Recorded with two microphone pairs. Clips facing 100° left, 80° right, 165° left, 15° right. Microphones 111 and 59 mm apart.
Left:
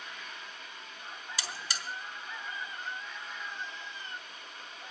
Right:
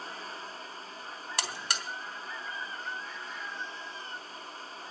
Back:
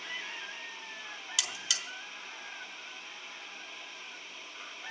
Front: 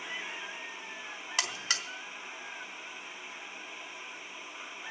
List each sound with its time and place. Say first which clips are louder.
1.4 s a buzzer: right 6 dB, front 4 dB; 60° right, 1.2 m